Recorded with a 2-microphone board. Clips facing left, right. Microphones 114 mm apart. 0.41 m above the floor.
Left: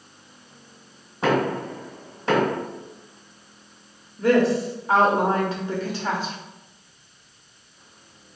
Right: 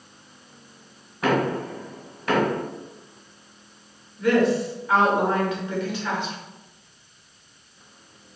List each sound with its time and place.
1.2 s knocking: 30° left (ahead or behind), 1.4 m
4.2 s a woman speaking: 35° left (ahead or behind), 0.9 m